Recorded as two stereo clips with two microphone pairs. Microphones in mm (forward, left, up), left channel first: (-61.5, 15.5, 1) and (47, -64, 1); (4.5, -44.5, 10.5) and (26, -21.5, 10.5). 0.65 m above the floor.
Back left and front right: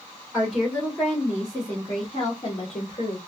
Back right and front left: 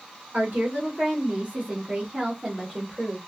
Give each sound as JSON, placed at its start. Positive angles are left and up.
{"t": 0.3, "sound": "a woman speaking", "azimuth_deg": 50, "distance_m": 1.7}